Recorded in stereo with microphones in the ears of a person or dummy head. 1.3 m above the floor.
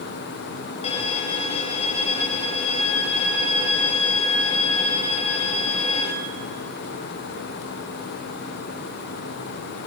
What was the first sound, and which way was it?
A violin, 30° left (ahead or behind).